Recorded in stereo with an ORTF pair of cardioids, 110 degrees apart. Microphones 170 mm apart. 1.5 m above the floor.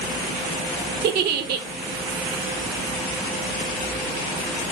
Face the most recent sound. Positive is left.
turn(degrees=-65)